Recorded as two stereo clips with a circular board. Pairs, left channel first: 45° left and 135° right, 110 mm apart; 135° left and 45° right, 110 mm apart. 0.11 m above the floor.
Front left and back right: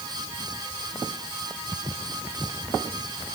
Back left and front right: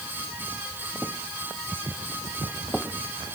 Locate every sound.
Only background noise.